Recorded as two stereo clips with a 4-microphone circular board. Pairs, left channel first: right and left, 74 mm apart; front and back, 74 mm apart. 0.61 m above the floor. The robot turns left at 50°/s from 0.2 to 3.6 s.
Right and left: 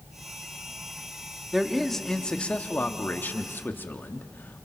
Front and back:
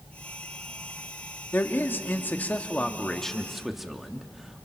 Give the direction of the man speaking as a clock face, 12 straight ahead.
12 o'clock.